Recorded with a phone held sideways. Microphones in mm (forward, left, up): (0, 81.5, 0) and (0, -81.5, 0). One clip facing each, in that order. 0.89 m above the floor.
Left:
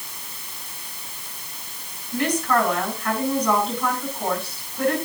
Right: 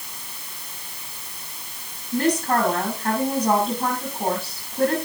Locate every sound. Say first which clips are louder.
2.1 s a woman speaking: right 1 dB; 45° right (ahead or behind), 8.5 m